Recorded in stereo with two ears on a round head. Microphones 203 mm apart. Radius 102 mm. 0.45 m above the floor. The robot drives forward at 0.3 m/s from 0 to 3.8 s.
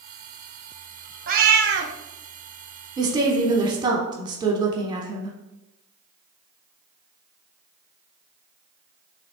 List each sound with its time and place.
1.3 s a cat meowing: 40° right (ahead or behind), 0.6 m; by 1.9 s 50° right (ahead or behind), 0.5 m
3.0 s a woman speaking: 20° right (ahead or behind), 0.8 m